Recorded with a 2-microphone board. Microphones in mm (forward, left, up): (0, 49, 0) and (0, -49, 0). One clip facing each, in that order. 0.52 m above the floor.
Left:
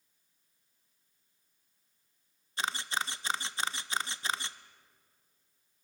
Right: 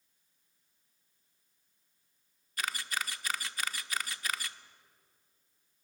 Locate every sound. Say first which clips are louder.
2.6 s a camera shutter: left 2 dB; 25° left (ahead or behind), 0.6 m